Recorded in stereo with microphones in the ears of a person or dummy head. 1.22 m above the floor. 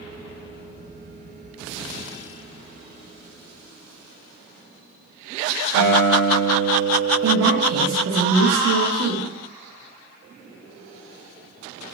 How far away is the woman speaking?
About 1.1 m.